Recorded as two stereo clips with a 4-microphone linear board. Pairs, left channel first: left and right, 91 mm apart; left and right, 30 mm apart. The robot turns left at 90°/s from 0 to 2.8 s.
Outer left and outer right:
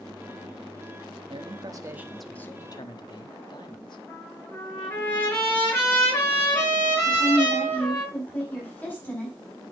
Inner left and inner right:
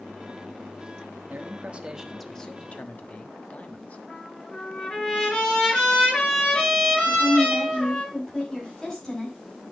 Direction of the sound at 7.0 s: 20° left (ahead or behind).